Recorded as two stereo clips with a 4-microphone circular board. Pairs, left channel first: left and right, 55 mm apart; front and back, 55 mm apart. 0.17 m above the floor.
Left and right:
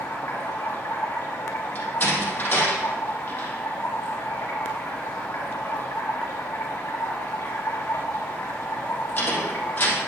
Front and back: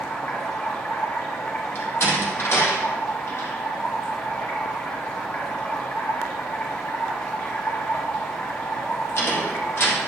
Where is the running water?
40° left, 4 m.